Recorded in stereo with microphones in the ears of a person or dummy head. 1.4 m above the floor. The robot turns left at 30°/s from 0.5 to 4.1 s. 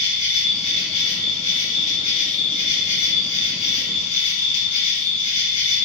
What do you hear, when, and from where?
0.0 s an insect: 165° right, 1.6 m; by 5.9 s 90° left, 1.6 m